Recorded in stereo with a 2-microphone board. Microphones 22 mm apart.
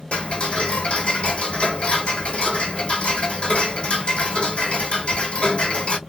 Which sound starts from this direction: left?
Ticking, at 0.1 s.